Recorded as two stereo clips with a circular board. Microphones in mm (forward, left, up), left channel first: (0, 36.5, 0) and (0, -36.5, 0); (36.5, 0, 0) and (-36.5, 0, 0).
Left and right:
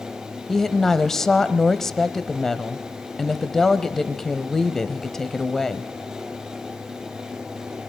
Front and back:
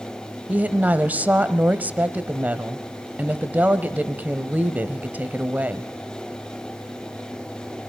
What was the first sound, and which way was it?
A woman speaking, 165° left.